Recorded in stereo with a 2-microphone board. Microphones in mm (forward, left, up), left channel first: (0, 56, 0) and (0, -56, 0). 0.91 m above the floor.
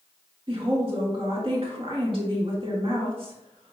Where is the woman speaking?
45° right (ahead or behind), 1.5 m.